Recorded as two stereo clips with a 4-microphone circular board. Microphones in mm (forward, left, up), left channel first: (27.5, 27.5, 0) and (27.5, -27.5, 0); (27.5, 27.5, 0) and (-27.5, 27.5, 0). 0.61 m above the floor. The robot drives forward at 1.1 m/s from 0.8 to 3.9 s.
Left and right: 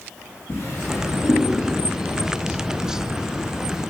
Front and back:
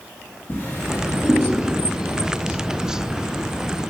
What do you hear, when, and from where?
0.5 s a drawer: 50° left, 4 m; by 1.4 s 55° left, 3.5 m